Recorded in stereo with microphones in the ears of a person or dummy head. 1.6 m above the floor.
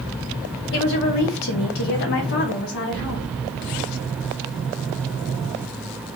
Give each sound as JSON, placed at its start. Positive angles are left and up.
{"t": 0.7, "sound": "a woman speaking", "side_deg": 55, "distance_m": 0.9}